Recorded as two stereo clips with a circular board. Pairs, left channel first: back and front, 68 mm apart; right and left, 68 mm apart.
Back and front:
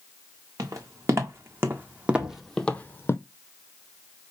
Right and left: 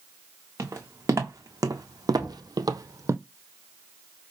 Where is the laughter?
No laughter in this recording.